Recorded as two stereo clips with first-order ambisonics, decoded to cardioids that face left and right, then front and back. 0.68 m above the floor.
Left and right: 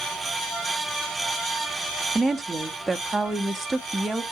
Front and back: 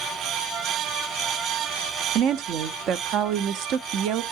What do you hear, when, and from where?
2.1 s a woman speaking: 175° right, 0.6 m